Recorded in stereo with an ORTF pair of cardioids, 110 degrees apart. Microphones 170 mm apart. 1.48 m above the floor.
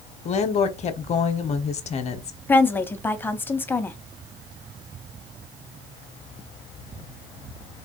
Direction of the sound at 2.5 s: 10° left.